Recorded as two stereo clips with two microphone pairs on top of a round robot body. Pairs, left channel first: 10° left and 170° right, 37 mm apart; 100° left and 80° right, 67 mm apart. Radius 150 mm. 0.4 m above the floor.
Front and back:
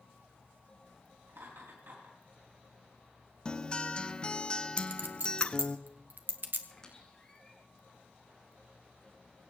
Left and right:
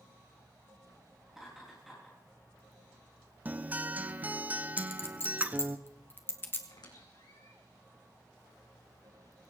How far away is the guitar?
About 1.1 m.